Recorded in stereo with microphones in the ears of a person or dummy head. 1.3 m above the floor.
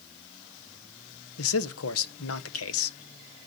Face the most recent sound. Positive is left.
turn(degrees=75)  # may be behind; listen again after turning